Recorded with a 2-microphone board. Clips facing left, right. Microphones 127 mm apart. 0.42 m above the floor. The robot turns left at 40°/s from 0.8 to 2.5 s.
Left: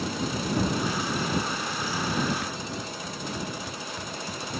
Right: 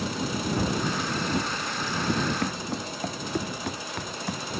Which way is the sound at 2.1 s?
70° right (ahead or behind).